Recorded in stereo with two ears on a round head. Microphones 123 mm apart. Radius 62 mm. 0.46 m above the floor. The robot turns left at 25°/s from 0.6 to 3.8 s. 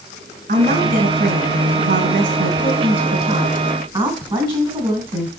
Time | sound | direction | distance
0.5 | a woman speaking | 60° right | 3 m